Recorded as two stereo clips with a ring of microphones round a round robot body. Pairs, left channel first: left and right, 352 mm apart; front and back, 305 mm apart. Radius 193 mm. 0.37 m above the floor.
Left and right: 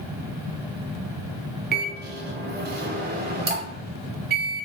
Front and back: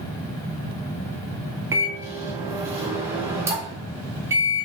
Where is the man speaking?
I don't hear a man speaking.